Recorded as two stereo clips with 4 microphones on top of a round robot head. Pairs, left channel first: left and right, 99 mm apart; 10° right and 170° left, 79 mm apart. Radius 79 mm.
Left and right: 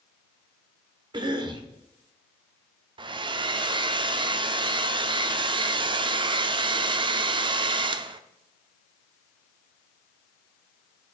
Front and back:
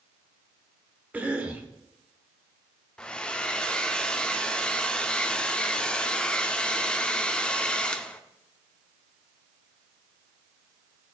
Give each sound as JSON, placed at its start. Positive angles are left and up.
{"t": 1.1, "sound": "a cough", "azimuth_deg": -120, "distance_m": 1.3}
{"t": 3.0, "sound": "a hair dryer", "azimuth_deg": -85, "distance_m": 0.5}